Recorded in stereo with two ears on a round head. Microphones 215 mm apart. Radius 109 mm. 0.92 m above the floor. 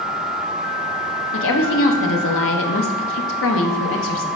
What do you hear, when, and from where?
1.3 s a woman speaking: 55° left (ahead or behind), 1.0 m